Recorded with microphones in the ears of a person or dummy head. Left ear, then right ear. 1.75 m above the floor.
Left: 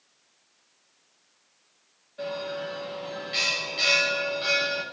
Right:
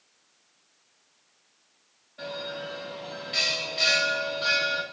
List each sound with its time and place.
2.2 s a bell: 5° right (ahead or behind), 2.5 m